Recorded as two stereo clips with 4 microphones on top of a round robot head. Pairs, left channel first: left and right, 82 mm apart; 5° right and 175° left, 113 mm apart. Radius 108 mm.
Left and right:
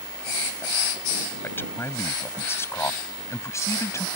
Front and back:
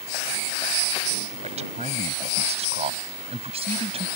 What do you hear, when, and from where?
1.4 s a man speaking: 155° left; by 4.1 s 140° left